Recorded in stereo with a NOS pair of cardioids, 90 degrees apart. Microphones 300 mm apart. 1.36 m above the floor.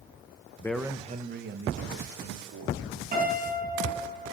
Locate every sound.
0.6 s a man speaking: 10° left, 1.0 m; by 3.0 s 55° right, 4 m
3.1 s a piano: 30° right, 6 m